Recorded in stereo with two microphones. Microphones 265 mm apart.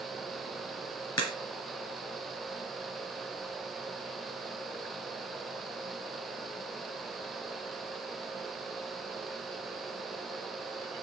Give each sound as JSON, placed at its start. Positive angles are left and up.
{"t": 1.2, "sound": "a crack", "side_deg": 70, "distance_m": 3.5}